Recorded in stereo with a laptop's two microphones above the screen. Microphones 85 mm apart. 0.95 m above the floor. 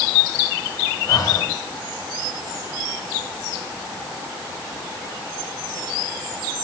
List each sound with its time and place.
1.1 s breathing: 45° left (ahead or behind), 1.8 m